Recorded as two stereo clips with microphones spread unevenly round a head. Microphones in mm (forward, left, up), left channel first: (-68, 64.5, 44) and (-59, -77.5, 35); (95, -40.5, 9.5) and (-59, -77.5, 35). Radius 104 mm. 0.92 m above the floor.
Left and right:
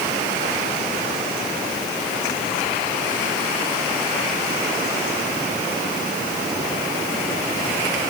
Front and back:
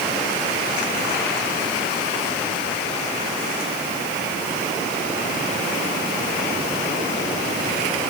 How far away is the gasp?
I don't hear a gasp.